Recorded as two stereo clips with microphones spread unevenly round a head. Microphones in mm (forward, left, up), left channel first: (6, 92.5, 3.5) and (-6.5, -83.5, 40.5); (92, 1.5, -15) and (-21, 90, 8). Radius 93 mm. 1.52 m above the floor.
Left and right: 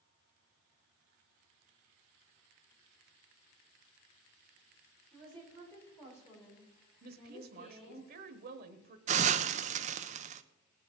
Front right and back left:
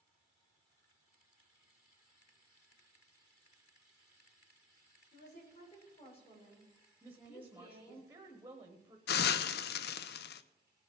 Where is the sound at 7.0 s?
135° right, 1.0 m.